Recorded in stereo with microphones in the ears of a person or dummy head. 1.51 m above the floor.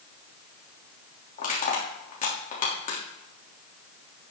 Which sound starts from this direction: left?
Crushing, at 1.4 s.